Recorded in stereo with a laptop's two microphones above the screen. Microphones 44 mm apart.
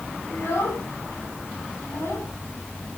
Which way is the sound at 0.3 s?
90° left.